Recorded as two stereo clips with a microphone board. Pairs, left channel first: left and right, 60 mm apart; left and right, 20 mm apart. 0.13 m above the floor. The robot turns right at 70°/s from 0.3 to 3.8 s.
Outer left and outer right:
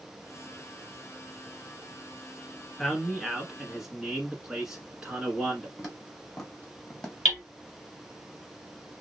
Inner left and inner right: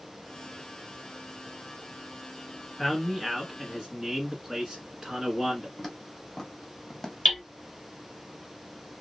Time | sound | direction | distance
2.8 | a man speaking | 15° left (ahead or behind) | 1.1 m
5.8 | footsteps | centre (ahead or behind) | 2.5 m
7.2 | hammering | centre (ahead or behind) | 2.5 m